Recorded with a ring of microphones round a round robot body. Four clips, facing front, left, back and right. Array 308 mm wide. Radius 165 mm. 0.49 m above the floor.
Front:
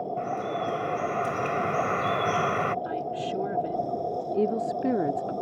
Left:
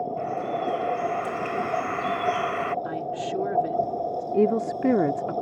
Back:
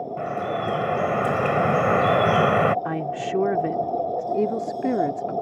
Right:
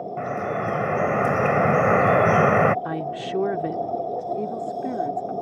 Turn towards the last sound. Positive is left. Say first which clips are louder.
# left 5 dB, back 2 dB
turn(degrees=100)